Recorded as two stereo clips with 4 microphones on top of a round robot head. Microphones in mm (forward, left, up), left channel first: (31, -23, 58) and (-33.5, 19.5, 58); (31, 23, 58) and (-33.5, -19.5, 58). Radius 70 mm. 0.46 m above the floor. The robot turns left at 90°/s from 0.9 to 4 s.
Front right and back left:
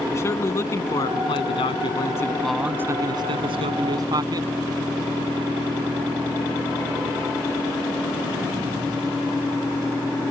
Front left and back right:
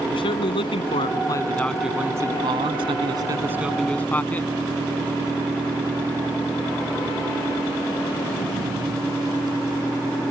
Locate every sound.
0.1 s a man speaking: 25° left; by 4.5 s 105° left